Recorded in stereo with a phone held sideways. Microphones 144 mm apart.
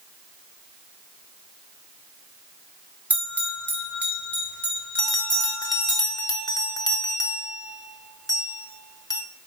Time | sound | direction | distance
3.1 | a bell | 15° right (ahead or behind) | 1.6 m
5.0 | a bell | 25° left (ahead or behind) | 0.8 m